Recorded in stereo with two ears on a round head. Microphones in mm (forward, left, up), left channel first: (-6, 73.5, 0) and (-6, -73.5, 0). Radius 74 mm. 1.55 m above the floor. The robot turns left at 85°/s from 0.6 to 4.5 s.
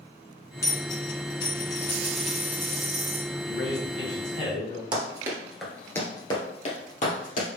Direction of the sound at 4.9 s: 30° right (ahead or behind).